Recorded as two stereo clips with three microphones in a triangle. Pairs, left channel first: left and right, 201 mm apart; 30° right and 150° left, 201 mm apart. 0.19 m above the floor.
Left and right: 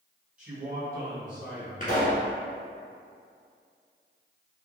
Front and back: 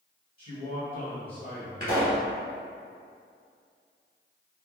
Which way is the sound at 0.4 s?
15° right.